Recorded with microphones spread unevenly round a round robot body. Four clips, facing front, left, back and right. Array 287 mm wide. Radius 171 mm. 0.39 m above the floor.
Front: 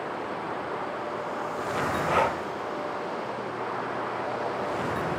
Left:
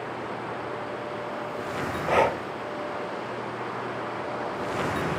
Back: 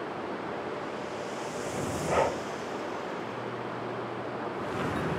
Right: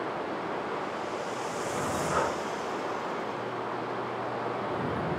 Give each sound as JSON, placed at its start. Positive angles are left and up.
{"t": 2.1, "sound": "breathing", "azimuth_deg": 70}